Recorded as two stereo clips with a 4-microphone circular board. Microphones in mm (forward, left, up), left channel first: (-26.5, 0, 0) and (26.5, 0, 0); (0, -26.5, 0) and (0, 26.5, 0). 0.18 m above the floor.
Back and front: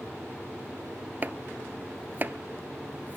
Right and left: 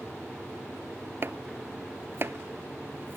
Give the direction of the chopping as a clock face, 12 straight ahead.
10 o'clock.